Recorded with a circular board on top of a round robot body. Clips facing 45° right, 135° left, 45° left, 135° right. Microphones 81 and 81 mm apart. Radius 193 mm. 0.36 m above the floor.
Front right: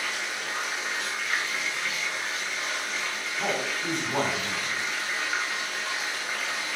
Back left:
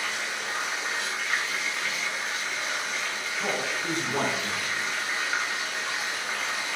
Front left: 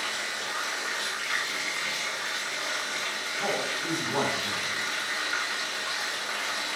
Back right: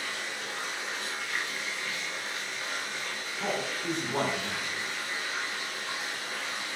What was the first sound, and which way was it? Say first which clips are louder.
Running water: back left 1 dB, front left 3 dB; 45° left.